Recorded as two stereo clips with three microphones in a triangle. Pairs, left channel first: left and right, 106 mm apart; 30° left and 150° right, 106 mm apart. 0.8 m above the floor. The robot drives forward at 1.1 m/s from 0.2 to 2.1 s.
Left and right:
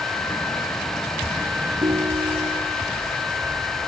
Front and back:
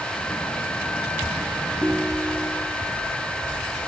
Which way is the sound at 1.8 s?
55° right.